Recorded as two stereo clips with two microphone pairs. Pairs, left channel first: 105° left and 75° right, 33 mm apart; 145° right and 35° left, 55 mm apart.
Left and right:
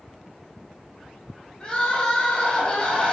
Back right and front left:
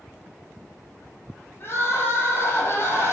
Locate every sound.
1.6 s crying: 165° left, 3 m